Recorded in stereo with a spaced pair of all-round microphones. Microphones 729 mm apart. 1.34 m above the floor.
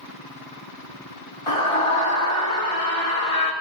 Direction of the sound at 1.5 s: 40° left (ahead or behind).